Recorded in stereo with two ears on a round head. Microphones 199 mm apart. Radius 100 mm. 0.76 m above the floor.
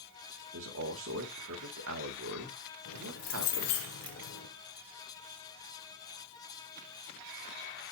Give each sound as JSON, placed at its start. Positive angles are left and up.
{"t": 0.5, "sound": "a man speaking", "side_deg": -65, "distance_m": 1.8}
{"t": 2.9, "sound": "keys jangling", "side_deg": 80, "distance_m": 1.7}